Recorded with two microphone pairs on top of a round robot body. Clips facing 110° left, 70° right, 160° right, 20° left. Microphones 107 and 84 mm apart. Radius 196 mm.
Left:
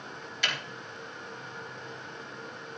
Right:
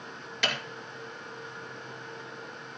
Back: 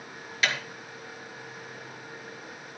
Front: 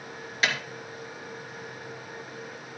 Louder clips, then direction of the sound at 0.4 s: Right 3 dB, front 1 dB; 40° right.